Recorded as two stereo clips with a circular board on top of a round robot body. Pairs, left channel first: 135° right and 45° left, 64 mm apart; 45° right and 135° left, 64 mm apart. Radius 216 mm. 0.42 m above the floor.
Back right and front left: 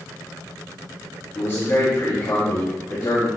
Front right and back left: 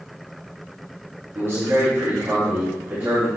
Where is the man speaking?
175° right, 3.5 m; by 3.3 s 160° right, 3.5 m.